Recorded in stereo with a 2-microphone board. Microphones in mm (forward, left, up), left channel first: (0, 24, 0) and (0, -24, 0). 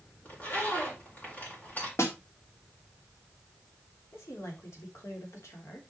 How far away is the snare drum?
About 2 m.